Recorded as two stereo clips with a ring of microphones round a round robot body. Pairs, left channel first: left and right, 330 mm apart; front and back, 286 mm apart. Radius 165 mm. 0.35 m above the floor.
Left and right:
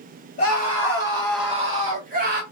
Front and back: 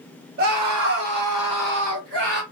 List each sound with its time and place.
0.4 s a scream: 145° left, 1.4 m; by 2.4 s 145° right, 1.4 m